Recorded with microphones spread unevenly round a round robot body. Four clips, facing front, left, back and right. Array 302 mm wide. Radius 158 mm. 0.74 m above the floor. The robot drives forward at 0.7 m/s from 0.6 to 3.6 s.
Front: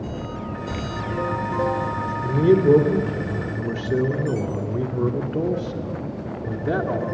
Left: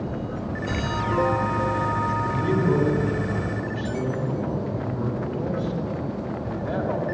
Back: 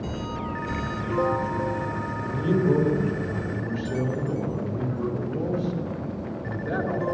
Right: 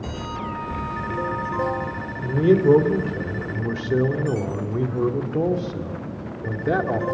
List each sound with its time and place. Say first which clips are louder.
2.2 s a man speaking: right 11 dB, front 8 dB; 40° right, 3.5 m; by 7.0 s 55° right, 2.5 m